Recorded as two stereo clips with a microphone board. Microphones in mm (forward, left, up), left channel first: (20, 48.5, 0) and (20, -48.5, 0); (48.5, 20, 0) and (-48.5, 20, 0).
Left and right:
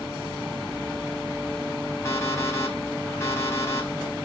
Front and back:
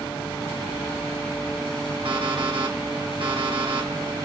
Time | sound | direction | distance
2.0 | an alarm clock | 150° left | 4.5 m